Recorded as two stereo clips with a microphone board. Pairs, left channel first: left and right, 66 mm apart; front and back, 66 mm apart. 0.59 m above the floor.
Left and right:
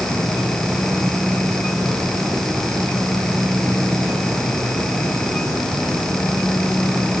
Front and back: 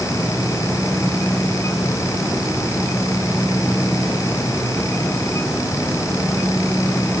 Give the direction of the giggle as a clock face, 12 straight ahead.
No giggle in this recording.